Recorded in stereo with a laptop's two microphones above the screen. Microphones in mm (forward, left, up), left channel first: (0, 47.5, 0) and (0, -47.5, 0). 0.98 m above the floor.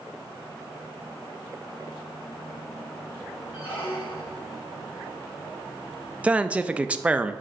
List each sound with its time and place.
3.5 s a squeak: 70° left (ahead or behind), 2 m
6.2 s a man speaking: 15° right (ahead or behind), 0.6 m